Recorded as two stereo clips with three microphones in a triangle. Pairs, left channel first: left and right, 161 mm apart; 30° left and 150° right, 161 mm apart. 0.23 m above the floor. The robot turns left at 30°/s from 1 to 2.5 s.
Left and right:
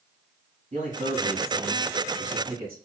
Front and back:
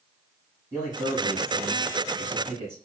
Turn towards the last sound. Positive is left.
turn(degrees=-130)